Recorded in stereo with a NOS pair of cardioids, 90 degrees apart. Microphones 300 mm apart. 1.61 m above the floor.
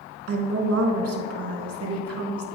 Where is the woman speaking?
50° right, 1.8 m.